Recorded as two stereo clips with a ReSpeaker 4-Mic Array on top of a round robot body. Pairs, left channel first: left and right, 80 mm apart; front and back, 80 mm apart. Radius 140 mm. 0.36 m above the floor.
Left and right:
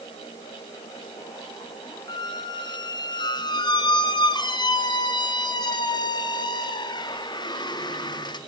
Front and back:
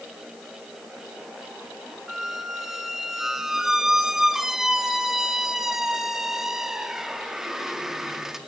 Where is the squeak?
95° left, 0.8 m.